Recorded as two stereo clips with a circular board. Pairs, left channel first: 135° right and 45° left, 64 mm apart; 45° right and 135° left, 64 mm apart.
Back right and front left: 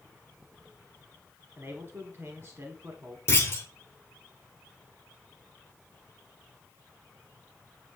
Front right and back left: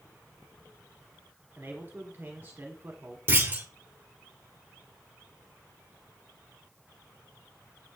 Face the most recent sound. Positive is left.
turn(degrees=-175)